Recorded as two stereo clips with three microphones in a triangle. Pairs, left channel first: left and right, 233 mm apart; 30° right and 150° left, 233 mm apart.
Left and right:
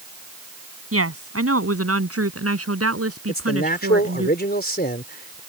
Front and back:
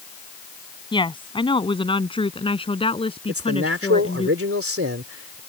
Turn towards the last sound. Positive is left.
turn(degrees=135)